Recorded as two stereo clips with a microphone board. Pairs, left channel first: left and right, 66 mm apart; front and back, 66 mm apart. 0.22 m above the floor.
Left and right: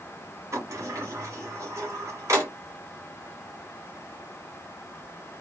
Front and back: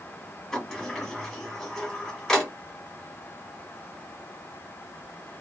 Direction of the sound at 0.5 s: 85° right.